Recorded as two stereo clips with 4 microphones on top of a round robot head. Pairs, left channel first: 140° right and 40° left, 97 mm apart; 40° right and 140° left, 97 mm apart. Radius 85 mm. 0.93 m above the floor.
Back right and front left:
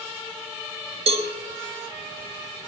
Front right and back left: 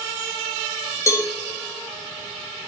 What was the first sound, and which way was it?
A cowbell, 20° left.